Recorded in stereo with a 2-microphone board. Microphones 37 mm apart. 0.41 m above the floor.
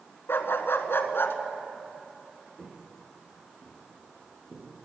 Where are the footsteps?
20° right (ahead or behind), 5 m.